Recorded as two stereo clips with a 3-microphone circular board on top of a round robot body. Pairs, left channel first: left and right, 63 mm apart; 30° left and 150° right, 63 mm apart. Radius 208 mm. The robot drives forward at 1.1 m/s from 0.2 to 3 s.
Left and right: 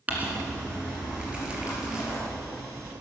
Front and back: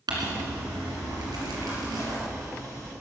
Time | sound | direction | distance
0.1 | crumpling | 155° right | 2 m